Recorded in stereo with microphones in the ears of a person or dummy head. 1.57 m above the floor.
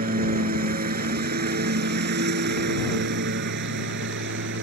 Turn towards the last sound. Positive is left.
turn(degrees=-60)  # may be behind; listen again after turning